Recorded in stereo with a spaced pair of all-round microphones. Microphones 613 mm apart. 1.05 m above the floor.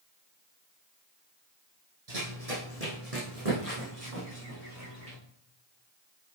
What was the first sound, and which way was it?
Running footsteps, 70° right (ahead or behind).